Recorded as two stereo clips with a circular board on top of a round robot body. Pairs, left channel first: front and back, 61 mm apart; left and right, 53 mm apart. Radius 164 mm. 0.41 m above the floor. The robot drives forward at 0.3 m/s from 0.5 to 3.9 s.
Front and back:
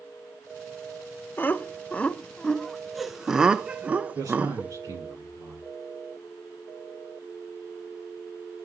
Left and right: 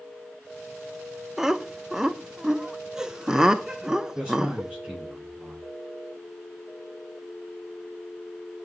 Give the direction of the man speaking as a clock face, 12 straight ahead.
6 o'clock.